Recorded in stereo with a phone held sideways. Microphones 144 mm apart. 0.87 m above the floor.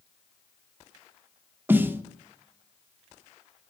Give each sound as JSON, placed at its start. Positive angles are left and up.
{"t": 1.7, "sound": "a snare drum", "side_deg": -15, "distance_m": 0.7}